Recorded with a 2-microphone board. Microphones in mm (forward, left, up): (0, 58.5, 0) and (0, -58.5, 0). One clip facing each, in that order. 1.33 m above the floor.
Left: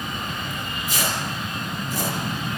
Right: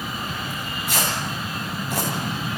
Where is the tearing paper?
70° right (ahead or behind), 9 m.